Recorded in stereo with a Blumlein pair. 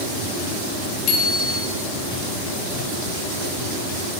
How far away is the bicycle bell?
About 3 m.